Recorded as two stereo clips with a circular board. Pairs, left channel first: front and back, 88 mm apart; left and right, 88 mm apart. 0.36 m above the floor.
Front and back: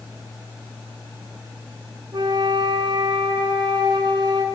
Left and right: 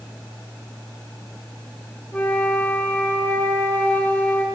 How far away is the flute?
About 0.9 m.